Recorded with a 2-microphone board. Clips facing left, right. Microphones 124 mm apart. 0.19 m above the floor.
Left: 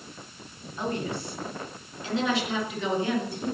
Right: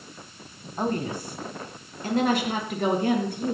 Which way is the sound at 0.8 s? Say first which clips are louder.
Right 3 dB; 45° right (ahead or behind).